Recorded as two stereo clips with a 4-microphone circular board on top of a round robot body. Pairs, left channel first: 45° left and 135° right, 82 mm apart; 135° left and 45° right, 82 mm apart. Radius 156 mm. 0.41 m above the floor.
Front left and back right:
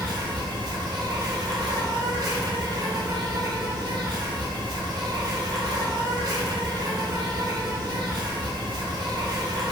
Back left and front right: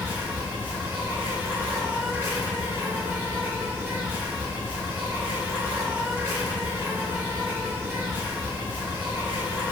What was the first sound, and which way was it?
An insect, 105° right.